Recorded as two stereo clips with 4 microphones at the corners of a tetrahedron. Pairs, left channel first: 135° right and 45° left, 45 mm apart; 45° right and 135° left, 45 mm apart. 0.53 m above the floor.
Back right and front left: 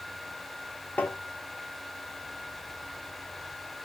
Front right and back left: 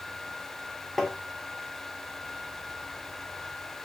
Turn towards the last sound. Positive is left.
turn(degrees=-130)